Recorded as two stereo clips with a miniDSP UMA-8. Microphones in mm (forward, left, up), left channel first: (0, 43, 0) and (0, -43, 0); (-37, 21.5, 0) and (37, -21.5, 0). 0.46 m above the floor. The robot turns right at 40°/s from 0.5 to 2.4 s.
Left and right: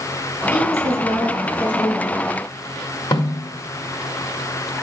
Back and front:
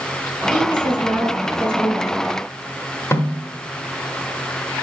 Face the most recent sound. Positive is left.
turn(degrees=95)